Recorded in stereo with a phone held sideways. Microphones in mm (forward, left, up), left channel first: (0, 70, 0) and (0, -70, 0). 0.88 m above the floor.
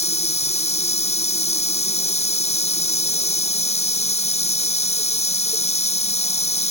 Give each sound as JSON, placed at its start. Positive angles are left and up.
{"t": 0.0, "sound": "running water", "side_deg": 50}